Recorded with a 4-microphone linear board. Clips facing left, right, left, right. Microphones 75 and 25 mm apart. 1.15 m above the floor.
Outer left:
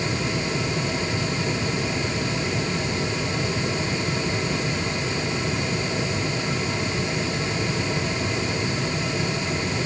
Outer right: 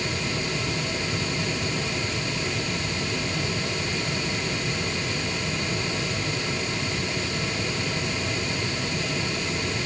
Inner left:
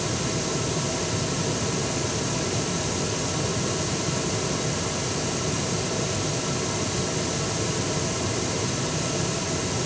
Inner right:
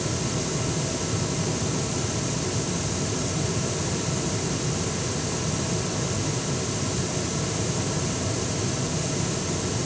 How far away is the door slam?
No door slam in this recording.